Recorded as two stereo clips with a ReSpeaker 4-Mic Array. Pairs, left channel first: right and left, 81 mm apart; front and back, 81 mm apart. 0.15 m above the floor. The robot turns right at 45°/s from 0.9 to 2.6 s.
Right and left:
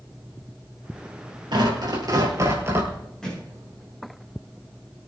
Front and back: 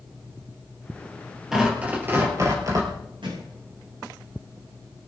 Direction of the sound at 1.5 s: 95° left.